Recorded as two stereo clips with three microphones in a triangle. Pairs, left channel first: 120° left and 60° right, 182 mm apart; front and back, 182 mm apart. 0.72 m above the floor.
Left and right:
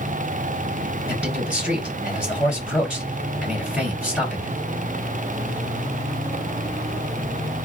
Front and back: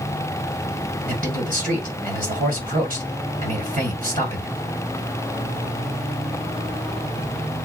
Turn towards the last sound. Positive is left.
turn(degrees=-145)